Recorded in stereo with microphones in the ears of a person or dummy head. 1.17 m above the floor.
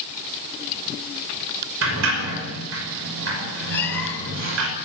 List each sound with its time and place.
1.8 s a sliding door: 75° right (ahead or behind), 5.5 m
3.7 s a cat meowing: 10° left (ahead or behind), 6 m